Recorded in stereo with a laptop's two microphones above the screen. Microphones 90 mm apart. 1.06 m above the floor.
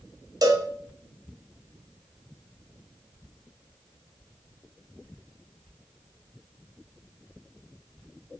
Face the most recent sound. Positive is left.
turn(degrees=-45)  # may be behind; listen again after turning